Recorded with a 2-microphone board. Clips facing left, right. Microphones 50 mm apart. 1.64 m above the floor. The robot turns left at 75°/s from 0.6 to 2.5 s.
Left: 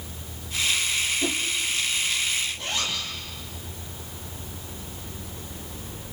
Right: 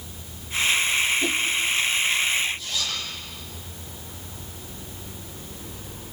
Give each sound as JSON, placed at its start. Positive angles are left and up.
{"t": 1.2, "sound": "a whoosh", "side_deg": 0, "distance_m": 0.8}
{"t": 2.6, "sound": "a zipper", "side_deg": 55, "distance_m": 7.0}